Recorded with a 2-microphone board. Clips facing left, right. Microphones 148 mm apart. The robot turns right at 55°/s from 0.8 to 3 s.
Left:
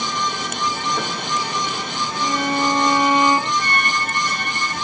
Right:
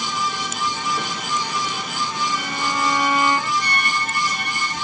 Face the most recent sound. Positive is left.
turn(degrees=45)  # may be behind; listen again after turning